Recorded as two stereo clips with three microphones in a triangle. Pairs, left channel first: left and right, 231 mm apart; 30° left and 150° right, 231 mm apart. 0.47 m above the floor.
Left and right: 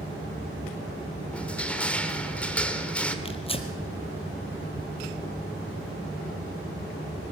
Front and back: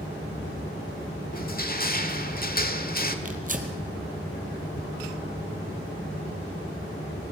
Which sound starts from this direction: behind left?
Tearing paper, at 3.2 s.